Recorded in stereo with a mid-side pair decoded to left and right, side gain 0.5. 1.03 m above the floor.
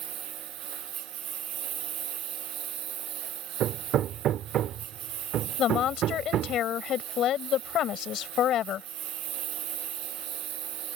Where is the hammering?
65° right.